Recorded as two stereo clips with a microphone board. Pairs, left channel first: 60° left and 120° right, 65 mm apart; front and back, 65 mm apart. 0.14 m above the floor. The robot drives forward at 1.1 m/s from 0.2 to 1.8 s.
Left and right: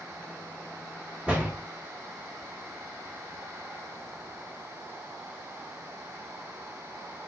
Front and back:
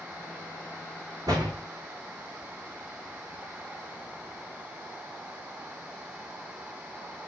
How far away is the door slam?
About 6.5 m.